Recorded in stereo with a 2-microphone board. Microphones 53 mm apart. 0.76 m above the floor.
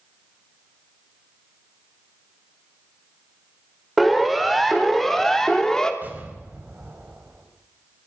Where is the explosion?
35° right (ahead or behind), 5 m.